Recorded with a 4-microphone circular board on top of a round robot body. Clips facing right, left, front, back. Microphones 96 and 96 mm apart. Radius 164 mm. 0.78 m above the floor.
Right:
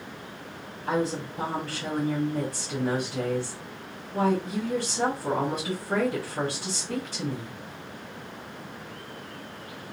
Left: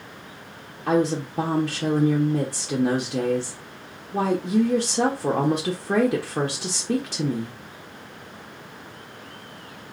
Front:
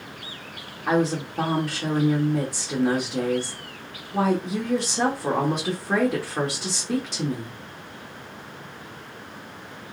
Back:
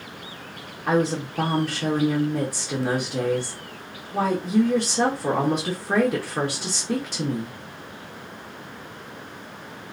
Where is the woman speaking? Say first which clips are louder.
Left 6 dB, even; 95° left, 1.2 m.